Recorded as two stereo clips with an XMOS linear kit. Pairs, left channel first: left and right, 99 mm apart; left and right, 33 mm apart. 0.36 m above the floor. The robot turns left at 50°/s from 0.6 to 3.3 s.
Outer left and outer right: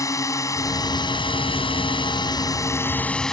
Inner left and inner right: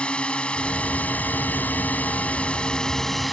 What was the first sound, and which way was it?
A drone, 140° left.